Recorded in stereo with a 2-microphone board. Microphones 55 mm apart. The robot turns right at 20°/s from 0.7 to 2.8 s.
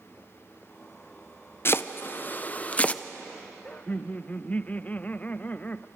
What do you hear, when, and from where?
1.6 s chopping: 45° left (ahead or behind), 0.5 m; by 3.0 s 25° left (ahead or behind), 0.5 m
3.6 s laughter: 25° left (ahead or behind), 0.5 m